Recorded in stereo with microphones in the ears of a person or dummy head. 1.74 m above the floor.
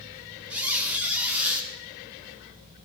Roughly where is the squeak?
Centre.